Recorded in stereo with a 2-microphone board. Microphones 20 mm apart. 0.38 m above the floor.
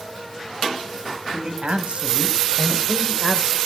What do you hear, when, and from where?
1.3 s a man speaking: 65° right (ahead or behind), 2.5 m; by 3.6 s 10° right (ahead or behind), 1.2 m